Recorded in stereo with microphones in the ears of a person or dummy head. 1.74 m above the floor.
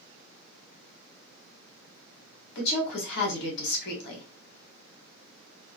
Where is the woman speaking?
55° left (ahead or behind), 1.5 m.